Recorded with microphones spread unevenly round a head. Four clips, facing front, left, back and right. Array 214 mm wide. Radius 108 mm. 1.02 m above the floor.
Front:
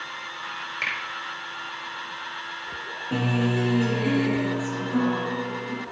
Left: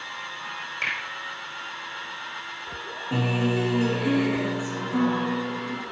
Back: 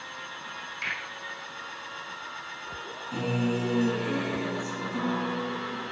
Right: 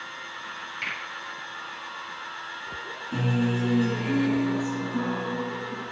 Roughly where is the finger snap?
Ahead left.